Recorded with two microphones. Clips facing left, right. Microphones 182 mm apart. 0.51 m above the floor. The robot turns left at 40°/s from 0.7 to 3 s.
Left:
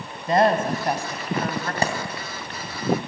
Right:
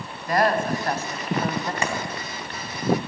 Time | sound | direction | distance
0.3 | a woman speaking | 25° left | 2.5 m
1.8 | a clap | 35° left (ahead or behind) | 3 m